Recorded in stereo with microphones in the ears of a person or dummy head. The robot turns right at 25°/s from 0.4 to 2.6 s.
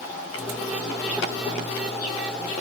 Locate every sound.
Only background noise.